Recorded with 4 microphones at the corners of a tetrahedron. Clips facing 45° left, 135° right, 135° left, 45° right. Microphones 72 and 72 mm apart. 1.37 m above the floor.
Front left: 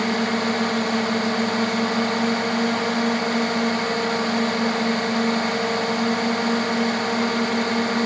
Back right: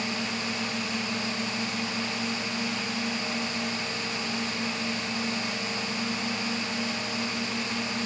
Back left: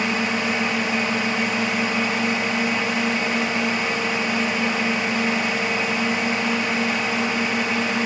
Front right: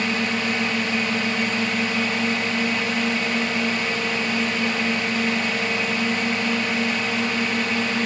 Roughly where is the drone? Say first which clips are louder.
Front left 10 dB, back left 1 dB; ahead left.